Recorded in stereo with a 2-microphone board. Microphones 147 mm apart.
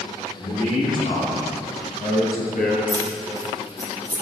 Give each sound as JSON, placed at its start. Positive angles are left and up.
{"t": 0.3, "sound": "a man speaking", "side_deg": 45, "distance_m": 3.0}
{"t": 2.9, "sound": "keys jangling", "side_deg": -30, "distance_m": 1.7}